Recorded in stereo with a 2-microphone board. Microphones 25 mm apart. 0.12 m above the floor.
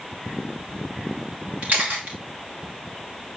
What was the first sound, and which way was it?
A camera shutter, 85° right.